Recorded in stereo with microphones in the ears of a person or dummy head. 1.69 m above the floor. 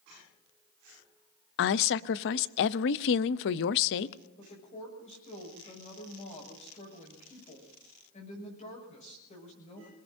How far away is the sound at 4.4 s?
About 6.5 m.